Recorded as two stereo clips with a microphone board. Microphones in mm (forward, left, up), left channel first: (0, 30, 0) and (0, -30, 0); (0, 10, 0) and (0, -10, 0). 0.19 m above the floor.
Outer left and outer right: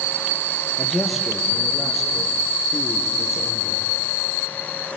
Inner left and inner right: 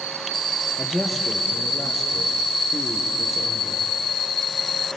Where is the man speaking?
5° right (ahead or behind), 4.5 m.